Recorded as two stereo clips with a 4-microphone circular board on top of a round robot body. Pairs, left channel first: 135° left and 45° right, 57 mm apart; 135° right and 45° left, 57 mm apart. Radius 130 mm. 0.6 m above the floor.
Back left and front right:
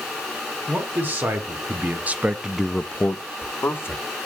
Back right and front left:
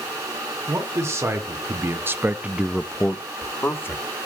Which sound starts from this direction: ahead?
A man speaking, at 0.7 s.